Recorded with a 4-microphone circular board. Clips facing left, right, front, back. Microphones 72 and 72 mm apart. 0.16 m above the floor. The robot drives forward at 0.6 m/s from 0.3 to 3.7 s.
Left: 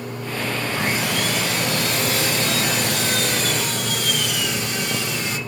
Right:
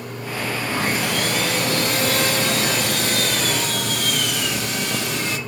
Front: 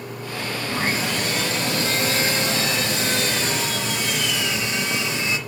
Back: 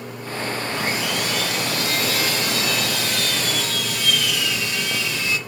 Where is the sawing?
55° right, 7 m; by 5.4 s 70° right, 6 m.